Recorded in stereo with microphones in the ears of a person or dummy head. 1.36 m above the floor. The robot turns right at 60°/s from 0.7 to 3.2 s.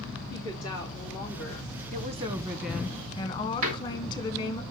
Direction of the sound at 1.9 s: 50° right.